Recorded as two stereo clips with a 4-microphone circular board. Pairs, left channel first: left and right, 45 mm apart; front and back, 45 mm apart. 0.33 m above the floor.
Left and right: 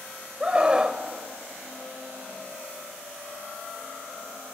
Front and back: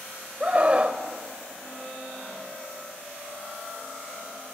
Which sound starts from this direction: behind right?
A scream, at 0.4 s.